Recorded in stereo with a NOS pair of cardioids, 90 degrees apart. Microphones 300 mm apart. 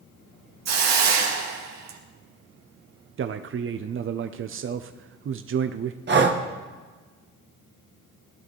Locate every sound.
0.7 s a hiss: 65° right, 2 m
3.2 s a man speaking: 40° right, 0.8 m
6.1 s breathing: 35° right, 1.7 m